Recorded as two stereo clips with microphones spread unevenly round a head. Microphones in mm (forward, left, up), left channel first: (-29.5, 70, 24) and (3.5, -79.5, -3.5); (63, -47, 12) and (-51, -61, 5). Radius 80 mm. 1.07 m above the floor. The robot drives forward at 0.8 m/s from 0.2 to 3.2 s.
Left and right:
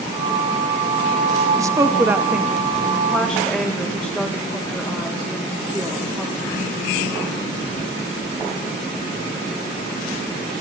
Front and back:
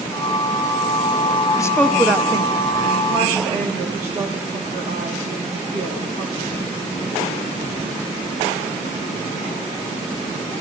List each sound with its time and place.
1.6 s a woman speaking: 40° right, 0.6 m; by 6.7 s 165° right, 1.1 m